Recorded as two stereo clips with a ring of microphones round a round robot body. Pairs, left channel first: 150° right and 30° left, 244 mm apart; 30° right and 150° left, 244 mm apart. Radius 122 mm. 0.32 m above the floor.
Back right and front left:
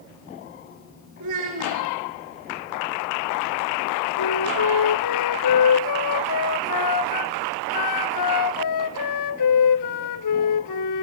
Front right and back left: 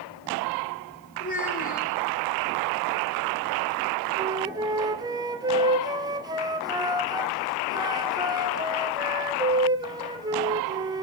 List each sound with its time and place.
1.2 s a child speaking: 20° left, 4 m
4.2 s a flute: 135° right, 1.1 m